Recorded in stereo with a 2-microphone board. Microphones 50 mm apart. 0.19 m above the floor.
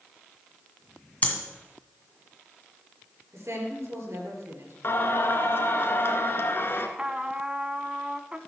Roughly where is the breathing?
Left.